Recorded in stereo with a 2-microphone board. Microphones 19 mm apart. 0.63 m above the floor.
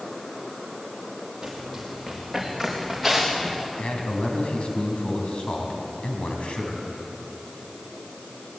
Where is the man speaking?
70° left (ahead or behind), 4 m.